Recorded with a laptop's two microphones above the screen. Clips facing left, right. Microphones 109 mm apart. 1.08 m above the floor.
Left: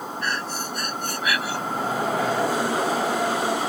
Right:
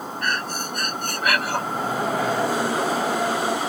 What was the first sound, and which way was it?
Breathing, 60° right (ahead or behind).